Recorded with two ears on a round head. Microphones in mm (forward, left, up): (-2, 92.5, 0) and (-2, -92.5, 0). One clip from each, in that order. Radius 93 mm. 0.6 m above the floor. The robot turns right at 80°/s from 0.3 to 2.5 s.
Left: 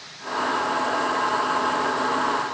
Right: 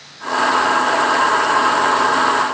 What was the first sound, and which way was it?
Only background noise.